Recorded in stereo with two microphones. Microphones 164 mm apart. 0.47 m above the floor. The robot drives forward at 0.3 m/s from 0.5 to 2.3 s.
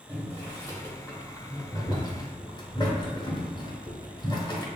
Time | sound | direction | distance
0.1 | boiling | 15° left (ahead or behind) | 1.1 m